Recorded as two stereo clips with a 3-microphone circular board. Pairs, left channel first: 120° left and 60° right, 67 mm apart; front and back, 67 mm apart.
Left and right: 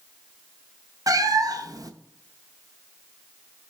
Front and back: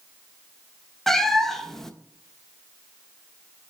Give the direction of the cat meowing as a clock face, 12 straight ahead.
3 o'clock.